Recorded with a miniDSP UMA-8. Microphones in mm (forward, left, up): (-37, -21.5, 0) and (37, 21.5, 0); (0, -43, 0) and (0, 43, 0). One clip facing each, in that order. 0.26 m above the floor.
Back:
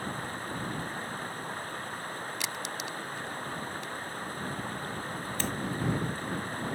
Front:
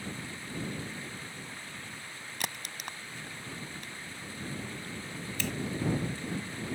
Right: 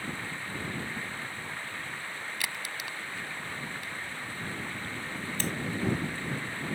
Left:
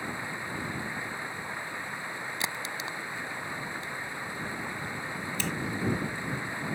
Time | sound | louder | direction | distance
0.0 | running water | back 5 dB, left 2 dB | 165° left | ?
2.4 | a crack | back 4 dB, left 3 dB | 35° left | ?
5.4 | a finger snap | back 1 dB, even | 115° right | ?